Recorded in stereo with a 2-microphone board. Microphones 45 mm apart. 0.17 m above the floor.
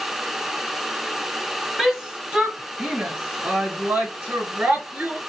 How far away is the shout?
About 1.3 m.